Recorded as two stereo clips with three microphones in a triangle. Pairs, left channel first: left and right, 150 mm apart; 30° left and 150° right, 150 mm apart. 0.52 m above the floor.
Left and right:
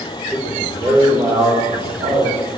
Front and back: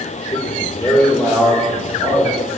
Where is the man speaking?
5° left, 1.1 m; by 2.4 s 70° right, 3 m.